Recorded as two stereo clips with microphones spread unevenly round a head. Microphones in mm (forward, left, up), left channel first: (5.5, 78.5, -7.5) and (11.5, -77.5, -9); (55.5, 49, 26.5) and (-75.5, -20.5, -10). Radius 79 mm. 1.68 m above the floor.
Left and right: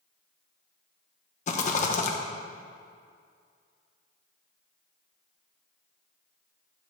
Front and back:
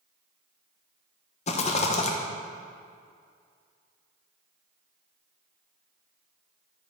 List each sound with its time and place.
1.5 s a rattle: 55° left, 1.1 m